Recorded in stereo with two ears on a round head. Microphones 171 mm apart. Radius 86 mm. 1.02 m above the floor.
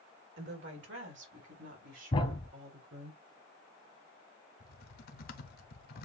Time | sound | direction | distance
0.4 | a woman speaking | 65° right (ahead or behind) | 1.7 m
2.1 | a thud | 30° left (ahead or behind) | 1.0 m
4.6 | typing on a keyboard | 50° left (ahead or behind) | 0.8 m